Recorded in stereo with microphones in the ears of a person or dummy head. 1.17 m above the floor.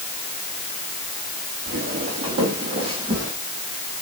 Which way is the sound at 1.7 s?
45° right (ahead or behind).